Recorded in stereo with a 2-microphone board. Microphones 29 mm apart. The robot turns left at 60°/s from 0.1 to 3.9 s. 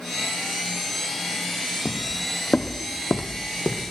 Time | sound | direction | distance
1.9 | footsteps | 35° left (ahead or behind) | 0.7 m